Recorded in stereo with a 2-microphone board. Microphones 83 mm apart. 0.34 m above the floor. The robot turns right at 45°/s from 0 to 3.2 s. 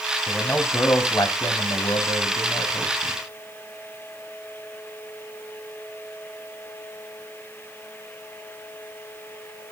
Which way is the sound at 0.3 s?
10° left.